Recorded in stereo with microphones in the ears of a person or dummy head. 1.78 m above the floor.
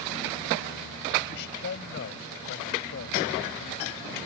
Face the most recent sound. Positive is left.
turn(degrees=60)  # may be behind; listen again after turning